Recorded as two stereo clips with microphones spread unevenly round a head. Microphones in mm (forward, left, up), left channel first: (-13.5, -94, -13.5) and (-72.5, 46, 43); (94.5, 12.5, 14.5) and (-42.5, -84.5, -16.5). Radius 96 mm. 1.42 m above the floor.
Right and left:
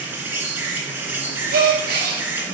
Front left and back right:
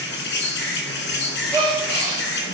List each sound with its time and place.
0.0 s an insect: 25° left, 2.5 m
1.5 s a gasp: 130° left, 8 m